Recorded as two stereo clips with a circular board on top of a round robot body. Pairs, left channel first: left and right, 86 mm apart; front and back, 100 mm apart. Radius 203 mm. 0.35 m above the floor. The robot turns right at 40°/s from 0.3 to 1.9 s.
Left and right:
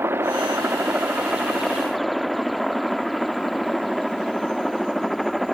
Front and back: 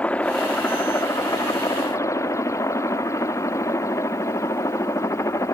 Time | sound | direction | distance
0.0 | a helicopter | 60° right | ?